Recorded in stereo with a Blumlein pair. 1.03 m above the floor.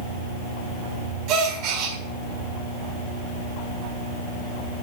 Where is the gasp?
40° right, 1.9 m.